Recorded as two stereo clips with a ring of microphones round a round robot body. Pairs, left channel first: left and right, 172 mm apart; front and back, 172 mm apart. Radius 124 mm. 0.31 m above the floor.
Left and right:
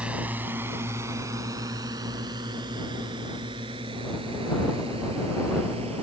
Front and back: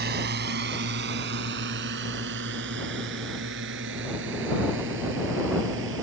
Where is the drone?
175° right; by 6.0 s 160° right.